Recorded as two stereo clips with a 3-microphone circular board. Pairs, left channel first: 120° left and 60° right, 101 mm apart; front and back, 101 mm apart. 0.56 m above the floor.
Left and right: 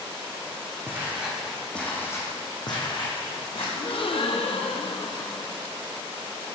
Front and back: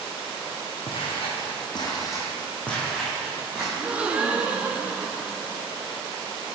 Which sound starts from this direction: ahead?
Footsteps, at 0.9 s.